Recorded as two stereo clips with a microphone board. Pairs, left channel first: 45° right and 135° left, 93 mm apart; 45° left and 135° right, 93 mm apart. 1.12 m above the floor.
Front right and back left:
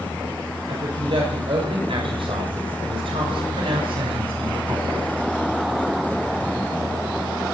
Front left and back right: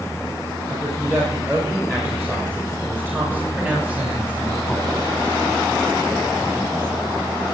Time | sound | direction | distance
0.7 | a woman speaking | 160° left | 7 m